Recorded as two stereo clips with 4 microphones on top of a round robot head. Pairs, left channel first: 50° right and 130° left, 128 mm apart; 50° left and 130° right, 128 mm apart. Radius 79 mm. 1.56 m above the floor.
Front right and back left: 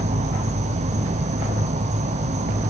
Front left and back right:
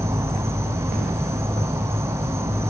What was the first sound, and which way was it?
An insect, 160° left.